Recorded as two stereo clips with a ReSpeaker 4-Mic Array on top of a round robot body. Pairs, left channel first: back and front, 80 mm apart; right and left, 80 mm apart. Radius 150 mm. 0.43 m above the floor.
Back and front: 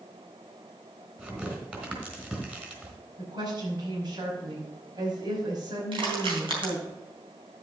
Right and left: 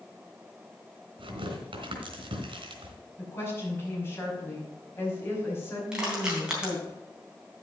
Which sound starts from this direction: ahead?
Crushing, at 5.9 s.